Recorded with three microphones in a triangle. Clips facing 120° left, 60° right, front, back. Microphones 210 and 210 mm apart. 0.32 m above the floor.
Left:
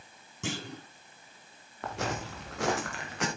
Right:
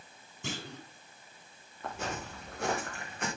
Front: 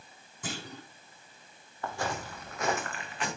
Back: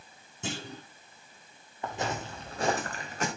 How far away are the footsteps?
About 3.5 m.